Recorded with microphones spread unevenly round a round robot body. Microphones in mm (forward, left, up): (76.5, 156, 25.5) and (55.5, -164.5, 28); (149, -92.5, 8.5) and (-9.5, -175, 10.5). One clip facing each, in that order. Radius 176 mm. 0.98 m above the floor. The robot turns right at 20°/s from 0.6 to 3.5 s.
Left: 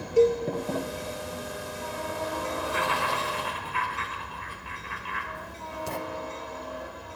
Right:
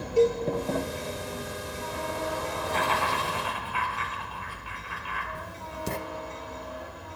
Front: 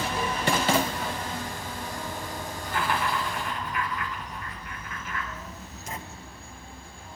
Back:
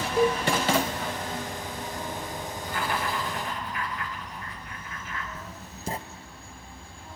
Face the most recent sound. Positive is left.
turn(degrees=-135)